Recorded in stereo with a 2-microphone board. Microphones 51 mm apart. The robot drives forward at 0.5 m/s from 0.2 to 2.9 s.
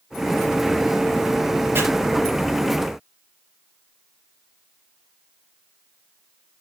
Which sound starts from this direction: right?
Chopping, at 1.8 s.